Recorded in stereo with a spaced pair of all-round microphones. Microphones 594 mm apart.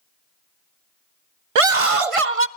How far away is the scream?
About 0.5 m.